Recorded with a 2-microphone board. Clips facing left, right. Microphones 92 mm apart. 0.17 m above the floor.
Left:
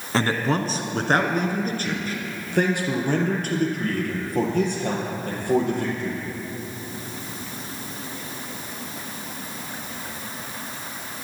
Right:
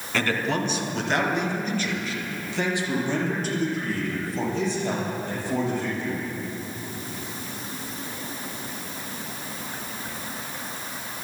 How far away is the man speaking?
About 1.4 m.